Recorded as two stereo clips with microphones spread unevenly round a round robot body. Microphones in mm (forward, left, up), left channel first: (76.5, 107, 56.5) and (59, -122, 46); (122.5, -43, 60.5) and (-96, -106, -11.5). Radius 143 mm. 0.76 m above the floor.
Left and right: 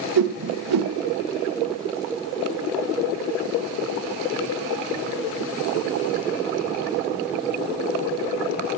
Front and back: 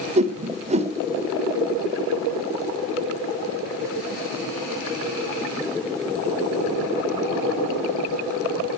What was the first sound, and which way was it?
A whoosh, 100° right.